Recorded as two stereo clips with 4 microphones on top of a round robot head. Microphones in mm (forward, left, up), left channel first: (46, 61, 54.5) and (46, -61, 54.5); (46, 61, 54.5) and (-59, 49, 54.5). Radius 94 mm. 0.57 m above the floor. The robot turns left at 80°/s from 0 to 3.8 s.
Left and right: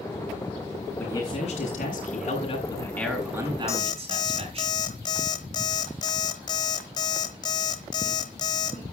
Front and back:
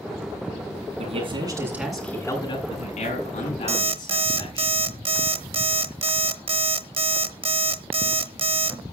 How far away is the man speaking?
About 8 m.